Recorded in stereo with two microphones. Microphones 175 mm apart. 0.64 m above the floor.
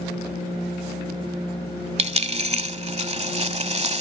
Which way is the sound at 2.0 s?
40° right (ahead or behind).